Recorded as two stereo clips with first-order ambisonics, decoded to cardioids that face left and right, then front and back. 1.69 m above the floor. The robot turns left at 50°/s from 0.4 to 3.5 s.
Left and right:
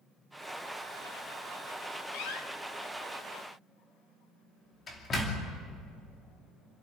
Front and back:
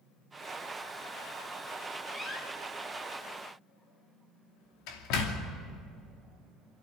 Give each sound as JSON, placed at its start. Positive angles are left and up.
{"t": 2.1, "sound": "a door slam", "azimuth_deg": 90, "distance_m": 2.5}